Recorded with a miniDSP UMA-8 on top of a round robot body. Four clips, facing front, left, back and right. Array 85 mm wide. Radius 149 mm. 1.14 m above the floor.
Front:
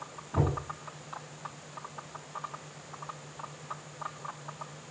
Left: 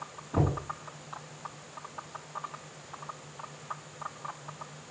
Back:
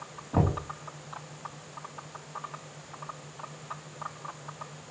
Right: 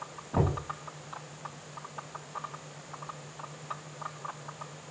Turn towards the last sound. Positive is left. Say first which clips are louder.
# even, back 3 dB
turn(degrees=-155)